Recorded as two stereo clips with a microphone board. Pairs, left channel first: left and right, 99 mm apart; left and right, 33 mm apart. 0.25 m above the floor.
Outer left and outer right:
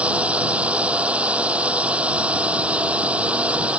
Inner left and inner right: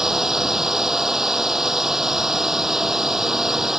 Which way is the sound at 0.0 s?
10° right (ahead or behind).